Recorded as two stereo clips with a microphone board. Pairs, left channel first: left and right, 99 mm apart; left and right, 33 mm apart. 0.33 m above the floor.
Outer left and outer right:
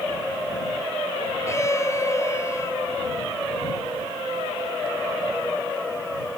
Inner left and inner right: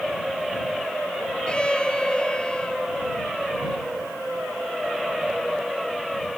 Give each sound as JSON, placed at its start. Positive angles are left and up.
{"t": 1.5, "sound": "a violin", "side_deg": 30}